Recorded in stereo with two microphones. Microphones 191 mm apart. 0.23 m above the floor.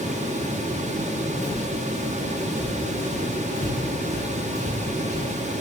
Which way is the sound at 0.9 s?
30° left (ahead or behind).